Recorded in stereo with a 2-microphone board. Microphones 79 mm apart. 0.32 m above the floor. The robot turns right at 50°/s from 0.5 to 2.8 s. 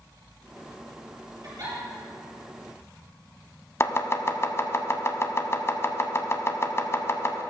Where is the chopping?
35° left (ahead or behind), 0.8 m.